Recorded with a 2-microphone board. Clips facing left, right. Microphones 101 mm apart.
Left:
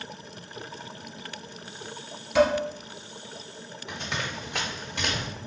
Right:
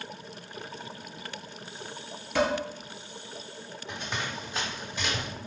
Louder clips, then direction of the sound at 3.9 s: Left 1 dB; 85° left.